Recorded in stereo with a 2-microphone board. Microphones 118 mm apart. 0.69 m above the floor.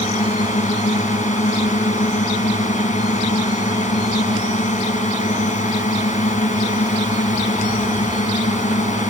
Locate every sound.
0.0 s a drone: 75° left (ahead or behind)